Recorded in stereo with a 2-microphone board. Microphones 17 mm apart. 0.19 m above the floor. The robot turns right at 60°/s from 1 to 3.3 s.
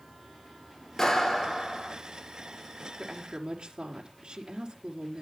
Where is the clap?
160° left, 2.5 m; by 1.9 s 145° right, 2.5 m.